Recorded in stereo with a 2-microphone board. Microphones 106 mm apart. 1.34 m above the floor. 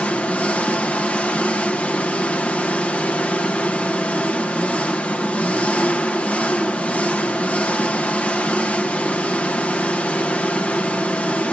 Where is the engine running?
10° left (ahead or behind), 0.8 m.